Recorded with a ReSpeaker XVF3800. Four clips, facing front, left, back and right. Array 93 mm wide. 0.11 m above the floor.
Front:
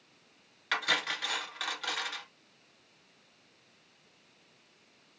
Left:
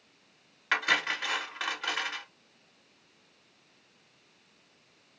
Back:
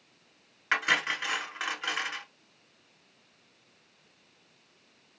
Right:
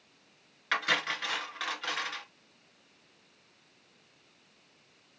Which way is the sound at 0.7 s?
155° left.